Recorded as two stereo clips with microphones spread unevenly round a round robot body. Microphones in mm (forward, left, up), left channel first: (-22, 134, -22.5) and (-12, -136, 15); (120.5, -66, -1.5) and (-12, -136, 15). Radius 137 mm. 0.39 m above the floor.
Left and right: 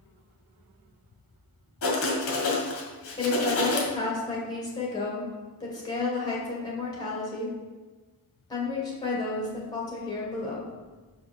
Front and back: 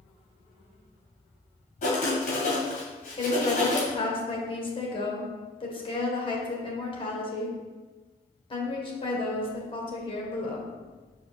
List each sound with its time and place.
1.8 s writing: 65° left, 1.9 m
3.2 s a woman speaking: 35° left, 1.8 m